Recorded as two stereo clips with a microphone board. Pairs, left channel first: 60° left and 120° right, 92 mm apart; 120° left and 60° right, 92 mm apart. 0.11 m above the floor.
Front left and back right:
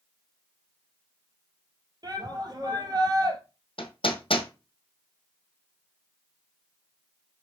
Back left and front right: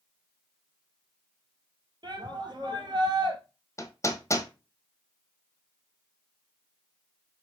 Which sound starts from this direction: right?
A shout, at 2.0 s.